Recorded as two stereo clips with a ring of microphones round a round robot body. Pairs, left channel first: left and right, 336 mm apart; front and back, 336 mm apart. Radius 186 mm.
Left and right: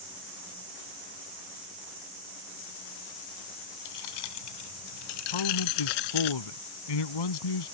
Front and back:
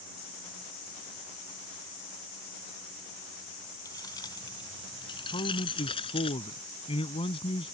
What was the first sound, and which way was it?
Keys jangling, 80° left.